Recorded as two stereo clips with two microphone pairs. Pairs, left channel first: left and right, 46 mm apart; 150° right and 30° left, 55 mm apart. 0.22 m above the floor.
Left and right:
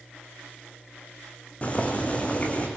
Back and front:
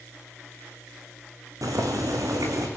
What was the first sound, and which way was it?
Boiling, 35° left.